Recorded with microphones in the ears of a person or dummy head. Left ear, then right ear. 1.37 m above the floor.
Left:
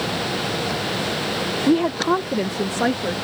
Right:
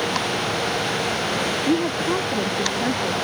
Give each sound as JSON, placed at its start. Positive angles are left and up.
{"t": 1.7, "sound": "a woman speaking", "side_deg": 20}